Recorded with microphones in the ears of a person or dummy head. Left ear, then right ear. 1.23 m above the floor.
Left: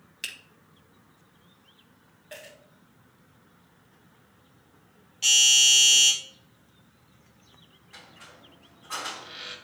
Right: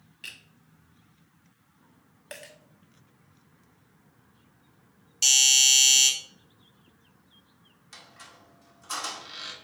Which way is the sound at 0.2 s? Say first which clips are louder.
Left 5 dB; 50° left (ahead or behind).